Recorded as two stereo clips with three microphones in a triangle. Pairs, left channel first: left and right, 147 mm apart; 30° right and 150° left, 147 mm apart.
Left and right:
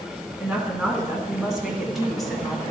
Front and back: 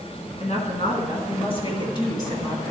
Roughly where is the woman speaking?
Ahead.